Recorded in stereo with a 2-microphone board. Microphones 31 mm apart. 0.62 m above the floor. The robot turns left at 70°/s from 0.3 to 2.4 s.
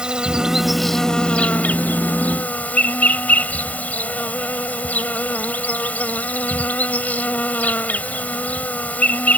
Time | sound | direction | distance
0.0 | an insect | 150° right | ?